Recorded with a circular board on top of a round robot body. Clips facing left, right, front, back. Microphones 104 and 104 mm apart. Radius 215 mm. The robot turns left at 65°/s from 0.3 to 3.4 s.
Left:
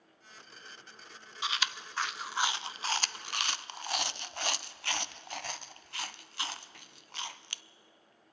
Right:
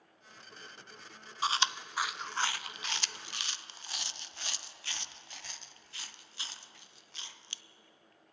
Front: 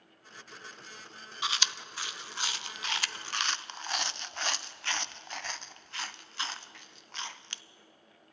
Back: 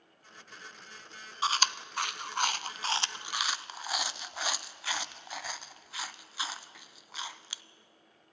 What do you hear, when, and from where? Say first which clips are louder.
1.4 s chewing: right 4 dB, back 5 dB; 135° right, 0.6 m; by 7.6 s 95° left, 0.6 m